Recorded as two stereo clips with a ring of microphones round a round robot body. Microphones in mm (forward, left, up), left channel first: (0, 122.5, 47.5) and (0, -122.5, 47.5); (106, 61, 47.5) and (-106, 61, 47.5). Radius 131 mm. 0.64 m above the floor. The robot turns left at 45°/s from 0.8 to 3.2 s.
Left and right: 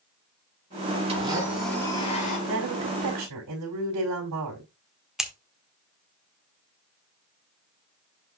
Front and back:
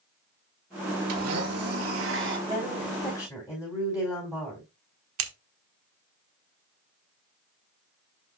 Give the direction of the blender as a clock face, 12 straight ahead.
5 o'clock.